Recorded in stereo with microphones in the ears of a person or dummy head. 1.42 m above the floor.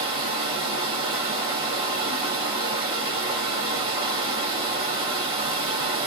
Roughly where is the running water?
Centre.